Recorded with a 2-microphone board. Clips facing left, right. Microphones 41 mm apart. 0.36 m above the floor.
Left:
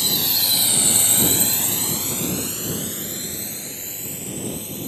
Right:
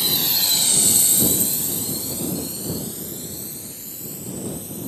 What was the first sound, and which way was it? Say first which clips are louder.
A drone: even; 10° right (ahead or behind).